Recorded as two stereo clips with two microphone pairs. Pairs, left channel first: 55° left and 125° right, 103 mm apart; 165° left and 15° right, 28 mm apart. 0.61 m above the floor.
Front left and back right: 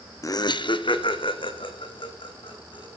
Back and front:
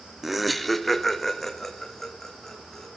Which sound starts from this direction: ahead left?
Laughter, at 0.2 s.